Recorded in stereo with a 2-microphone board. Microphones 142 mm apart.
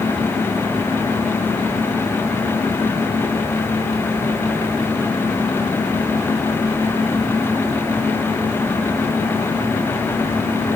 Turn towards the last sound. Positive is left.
No sound to turn to.